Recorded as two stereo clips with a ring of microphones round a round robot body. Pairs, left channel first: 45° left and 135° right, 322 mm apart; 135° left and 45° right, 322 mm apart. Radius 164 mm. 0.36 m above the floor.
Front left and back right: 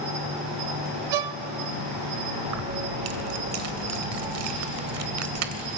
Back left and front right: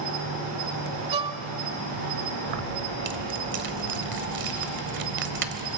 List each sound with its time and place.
0.0 s an insect: 85° right, 9.5 m
1.1 s a violin: 120° right, 0.5 m
2.5 s keys jangling: 100° right, 1.1 m